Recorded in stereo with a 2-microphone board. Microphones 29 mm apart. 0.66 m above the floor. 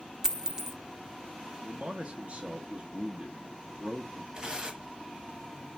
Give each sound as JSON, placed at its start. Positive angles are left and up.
{"t": 0.2, "sound": "a dropped coin", "side_deg": -10, "distance_m": 0.6}
{"t": 1.6, "sound": "a man speaking", "side_deg": -45, "distance_m": 0.7}
{"t": 4.3, "sound": "tearing paper", "side_deg": -30, "distance_m": 1.0}